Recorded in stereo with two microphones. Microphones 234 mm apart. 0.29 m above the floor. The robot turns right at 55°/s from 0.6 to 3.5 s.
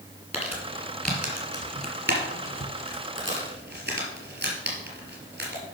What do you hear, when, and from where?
0.3 s crumpling: 25° left (ahead or behind), 3 m; by 5.6 s 45° right (ahead or behind), 3 m